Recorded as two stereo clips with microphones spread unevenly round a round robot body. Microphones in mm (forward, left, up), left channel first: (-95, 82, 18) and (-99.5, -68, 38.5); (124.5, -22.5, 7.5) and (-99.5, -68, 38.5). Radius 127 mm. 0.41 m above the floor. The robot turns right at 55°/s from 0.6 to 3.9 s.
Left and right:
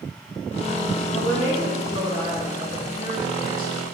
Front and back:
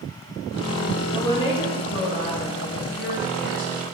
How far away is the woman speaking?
About 4 m.